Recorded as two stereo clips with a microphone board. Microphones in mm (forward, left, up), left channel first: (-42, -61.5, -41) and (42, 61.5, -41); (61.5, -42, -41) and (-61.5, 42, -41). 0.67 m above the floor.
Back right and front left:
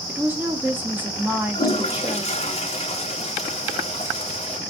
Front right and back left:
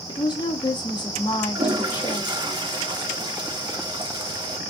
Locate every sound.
0.1 s a woman speaking: 15° right, 0.7 m
1.6 s a toilet flushing: 160° right, 0.7 m